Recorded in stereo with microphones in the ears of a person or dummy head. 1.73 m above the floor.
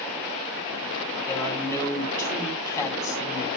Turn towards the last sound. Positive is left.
turn(degrees=15)  # may be behind; listen again after turning